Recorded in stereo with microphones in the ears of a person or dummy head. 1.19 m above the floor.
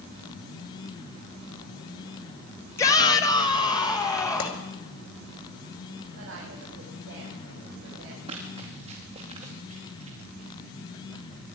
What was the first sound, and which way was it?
A shout, 15° left (ahead or behind).